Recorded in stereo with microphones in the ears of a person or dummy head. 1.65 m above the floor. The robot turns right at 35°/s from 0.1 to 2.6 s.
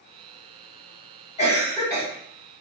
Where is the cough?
25° left (ahead or behind), 1.4 m; by 2.0 s centre (ahead or behind), 1.4 m.